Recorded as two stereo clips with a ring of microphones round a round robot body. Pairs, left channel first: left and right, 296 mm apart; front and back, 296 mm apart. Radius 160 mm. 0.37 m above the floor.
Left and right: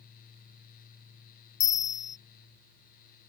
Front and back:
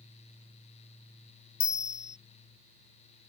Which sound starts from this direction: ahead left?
A bell, at 1.6 s.